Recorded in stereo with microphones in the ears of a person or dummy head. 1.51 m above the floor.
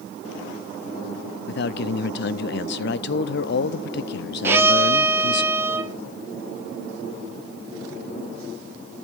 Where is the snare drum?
I don't hear a snare drum.